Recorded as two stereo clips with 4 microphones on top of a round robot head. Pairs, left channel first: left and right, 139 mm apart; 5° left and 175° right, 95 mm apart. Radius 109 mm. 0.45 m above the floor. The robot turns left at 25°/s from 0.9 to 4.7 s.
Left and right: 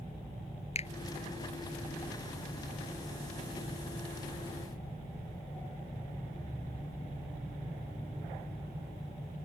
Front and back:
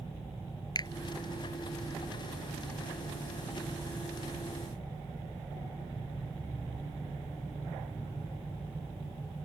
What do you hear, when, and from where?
0.8 s a finger snap: 45° left